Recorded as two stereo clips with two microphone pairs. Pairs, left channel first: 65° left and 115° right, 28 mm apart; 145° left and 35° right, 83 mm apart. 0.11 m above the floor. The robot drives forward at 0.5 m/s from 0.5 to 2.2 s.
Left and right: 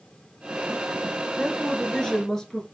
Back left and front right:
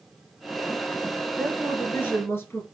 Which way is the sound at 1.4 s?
85° left.